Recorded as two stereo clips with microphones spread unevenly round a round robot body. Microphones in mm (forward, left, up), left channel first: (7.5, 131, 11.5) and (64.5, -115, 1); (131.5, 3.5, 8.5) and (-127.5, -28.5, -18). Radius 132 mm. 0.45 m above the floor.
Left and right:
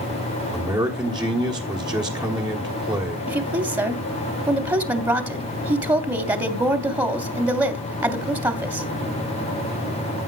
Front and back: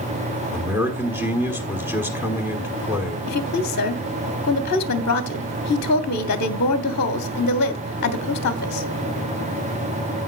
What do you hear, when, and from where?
0.5 s a man speaking: 120° right, 1.3 m
3.3 s a woman speaking: 15° right, 1.0 m